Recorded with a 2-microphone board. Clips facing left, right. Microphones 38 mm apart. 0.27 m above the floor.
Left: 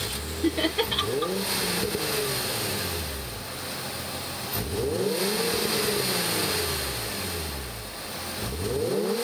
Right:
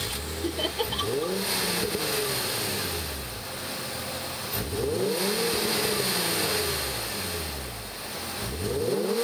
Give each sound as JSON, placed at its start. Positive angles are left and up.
{"t": 0.4, "sound": "laughter", "side_deg": 55, "distance_m": 4.5}